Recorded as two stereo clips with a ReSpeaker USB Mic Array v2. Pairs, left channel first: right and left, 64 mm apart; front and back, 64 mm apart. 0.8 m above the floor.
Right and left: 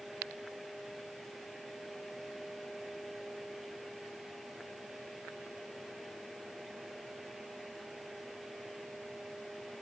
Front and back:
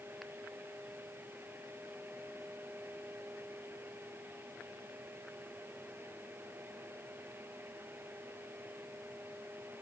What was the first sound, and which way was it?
Only background noise.